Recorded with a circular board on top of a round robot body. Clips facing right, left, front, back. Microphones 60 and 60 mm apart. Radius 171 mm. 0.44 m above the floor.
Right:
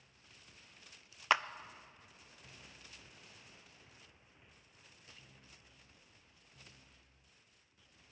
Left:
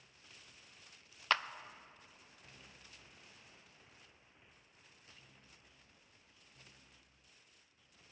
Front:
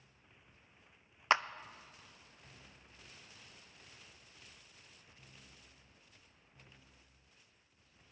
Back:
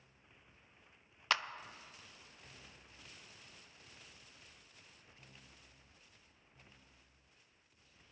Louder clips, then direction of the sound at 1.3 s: Right 3 dB, front 5 dB; 30° right.